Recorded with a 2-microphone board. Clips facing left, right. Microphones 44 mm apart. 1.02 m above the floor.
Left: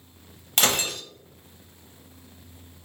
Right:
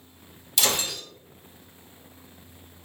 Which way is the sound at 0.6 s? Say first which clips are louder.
Left 2 dB; 50° left (ahead or behind).